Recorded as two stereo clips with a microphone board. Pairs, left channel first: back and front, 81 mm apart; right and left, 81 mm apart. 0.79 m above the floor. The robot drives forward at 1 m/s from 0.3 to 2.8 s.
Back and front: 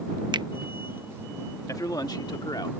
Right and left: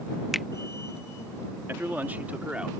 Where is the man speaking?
145° left; by 2.7 s 165° left.